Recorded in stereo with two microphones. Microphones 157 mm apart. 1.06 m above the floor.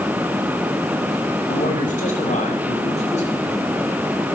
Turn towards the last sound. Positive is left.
turn(degrees=45)  # may be behind; listen again after turning